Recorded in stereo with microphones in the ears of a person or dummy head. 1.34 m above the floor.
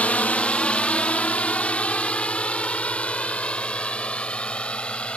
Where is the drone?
15° left (ahead or behind).